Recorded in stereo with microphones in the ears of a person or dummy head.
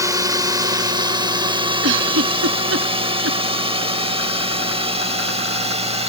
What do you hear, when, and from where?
0.0 s a drone: 20° right (ahead or behind); by 6.1 s 35° right (ahead or behind)
1.8 s a giggle: 70° right (ahead or behind)